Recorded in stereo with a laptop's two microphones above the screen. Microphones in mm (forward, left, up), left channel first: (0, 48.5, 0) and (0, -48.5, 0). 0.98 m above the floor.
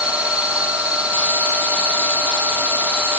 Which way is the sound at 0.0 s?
10° right (ahead or behind).